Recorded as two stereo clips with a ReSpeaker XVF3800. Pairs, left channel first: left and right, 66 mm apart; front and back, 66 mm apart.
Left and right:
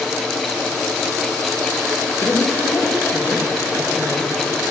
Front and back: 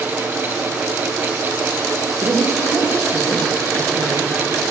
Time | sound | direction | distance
2.2 | a woman speaking | 130° left | 4 m